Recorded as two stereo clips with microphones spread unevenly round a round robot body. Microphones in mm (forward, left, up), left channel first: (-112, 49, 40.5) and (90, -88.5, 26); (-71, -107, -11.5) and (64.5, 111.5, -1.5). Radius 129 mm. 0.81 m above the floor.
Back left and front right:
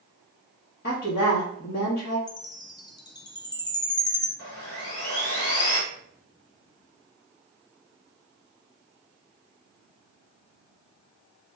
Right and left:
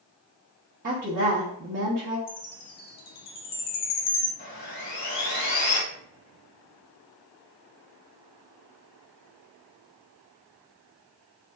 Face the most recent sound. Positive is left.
turn(degrees=175)